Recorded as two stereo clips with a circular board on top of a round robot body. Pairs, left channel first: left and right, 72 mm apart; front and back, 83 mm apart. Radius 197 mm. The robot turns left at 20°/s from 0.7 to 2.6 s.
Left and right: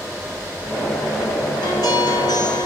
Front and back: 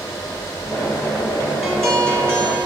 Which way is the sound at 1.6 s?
90° left.